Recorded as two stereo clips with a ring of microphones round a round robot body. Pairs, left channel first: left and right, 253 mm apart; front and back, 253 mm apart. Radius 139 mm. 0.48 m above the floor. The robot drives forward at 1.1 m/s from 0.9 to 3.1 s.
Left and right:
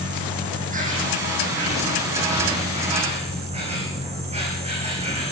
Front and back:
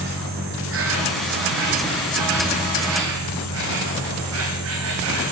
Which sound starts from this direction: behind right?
An insect, at 0.0 s.